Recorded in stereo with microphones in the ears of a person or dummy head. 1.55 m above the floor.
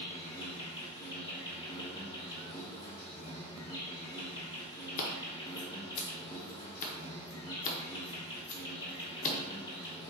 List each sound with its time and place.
0.0 s an insect: 25° left (ahead or behind), 1.0 m
5.0 s scissors: 40° left (ahead or behind), 0.8 m